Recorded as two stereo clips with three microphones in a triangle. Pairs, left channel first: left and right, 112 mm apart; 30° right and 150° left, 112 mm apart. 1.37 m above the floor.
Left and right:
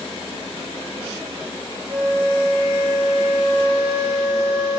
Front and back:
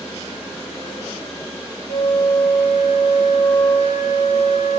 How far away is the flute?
About 2.5 m.